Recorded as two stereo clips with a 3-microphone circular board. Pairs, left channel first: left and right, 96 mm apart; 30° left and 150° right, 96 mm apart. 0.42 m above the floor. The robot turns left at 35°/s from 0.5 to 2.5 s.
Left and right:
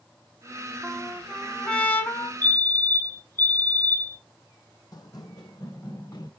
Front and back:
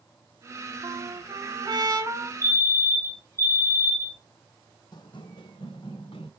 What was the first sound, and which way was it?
A trumpet, 160° right.